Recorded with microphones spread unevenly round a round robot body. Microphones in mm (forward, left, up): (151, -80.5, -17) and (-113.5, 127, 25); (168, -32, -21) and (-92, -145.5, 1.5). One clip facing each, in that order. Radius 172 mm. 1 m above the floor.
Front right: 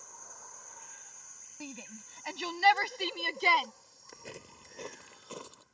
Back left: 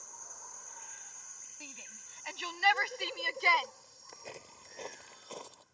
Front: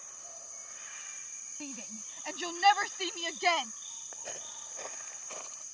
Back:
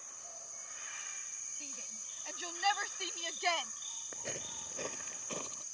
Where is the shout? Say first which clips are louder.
Front right 11 dB, front 12 dB; straight ahead; by 3.7 s 10° left.